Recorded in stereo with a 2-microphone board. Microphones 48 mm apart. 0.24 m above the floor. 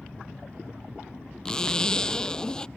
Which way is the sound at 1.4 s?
15° left (ahead or behind).